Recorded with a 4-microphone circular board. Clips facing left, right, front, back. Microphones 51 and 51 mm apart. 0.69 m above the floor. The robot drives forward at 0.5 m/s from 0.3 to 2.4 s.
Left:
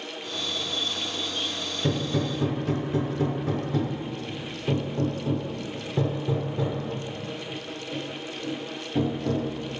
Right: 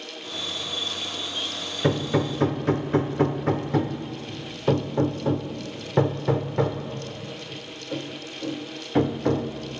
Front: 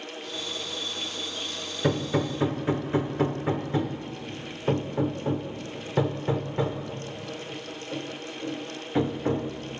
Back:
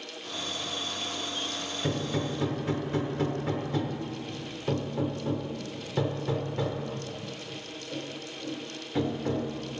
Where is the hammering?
50° right, 0.9 m; by 9.5 s 65° right, 0.8 m.